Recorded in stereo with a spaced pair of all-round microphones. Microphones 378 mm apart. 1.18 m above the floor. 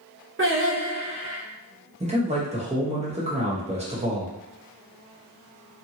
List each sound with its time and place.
0.4 s singing: 35° right (ahead or behind), 0.8 m
2.0 s a man speaking: 15° right (ahead or behind), 0.9 m